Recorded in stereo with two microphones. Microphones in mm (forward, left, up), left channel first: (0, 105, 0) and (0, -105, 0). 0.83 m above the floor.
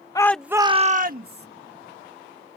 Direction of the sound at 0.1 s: 20° left (ahead or behind).